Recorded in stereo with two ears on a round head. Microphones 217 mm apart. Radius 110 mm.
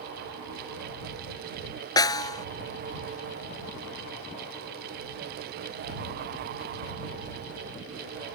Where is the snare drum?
20° left (ahead or behind).